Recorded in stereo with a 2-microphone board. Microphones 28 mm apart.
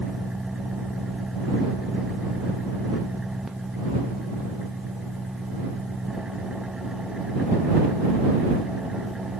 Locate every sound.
0.0 s an engine running: 20° right (ahead or behind)